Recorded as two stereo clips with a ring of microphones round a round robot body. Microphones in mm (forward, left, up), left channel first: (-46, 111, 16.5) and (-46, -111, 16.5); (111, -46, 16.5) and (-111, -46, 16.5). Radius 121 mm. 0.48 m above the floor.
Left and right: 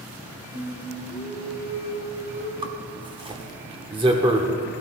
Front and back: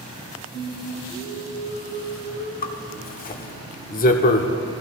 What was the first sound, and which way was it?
Singing, 50° right.